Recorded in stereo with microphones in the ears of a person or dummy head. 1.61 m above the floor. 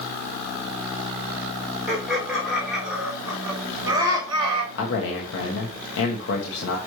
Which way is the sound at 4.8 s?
70° left (ahead or behind).